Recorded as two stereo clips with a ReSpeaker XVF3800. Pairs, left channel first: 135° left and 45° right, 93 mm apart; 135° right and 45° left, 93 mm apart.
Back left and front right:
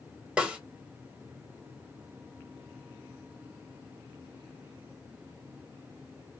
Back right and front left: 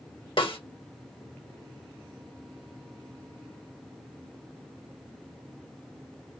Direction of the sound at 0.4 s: 120° right.